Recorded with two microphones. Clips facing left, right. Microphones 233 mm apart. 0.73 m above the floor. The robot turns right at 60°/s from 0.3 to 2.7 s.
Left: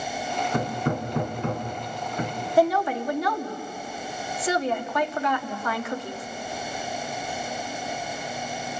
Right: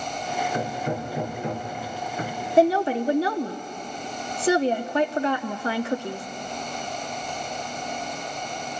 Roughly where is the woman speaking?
Right.